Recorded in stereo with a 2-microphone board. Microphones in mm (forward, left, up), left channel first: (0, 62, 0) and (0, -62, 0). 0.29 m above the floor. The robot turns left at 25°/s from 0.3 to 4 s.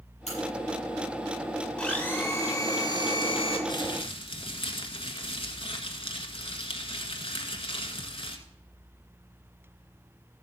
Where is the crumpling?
40° left (ahead or behind), 1.4 m; by 8.4 s 45° left (ahead or behind), 1.4 m.